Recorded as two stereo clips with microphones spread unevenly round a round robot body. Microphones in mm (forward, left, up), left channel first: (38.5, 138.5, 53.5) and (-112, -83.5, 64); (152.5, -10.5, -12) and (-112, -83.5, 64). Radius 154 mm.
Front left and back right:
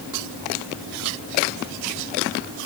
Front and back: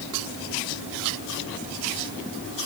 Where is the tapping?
No tapping in this recording.